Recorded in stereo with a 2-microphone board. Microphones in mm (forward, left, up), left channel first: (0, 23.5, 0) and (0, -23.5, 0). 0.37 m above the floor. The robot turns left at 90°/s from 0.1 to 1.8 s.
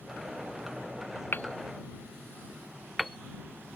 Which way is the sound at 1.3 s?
45° left (ahead or behind).